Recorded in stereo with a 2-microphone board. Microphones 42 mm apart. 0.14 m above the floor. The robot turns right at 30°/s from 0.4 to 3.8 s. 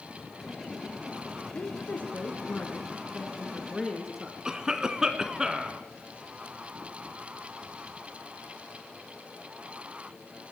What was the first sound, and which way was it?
A woman speaking, 110° left.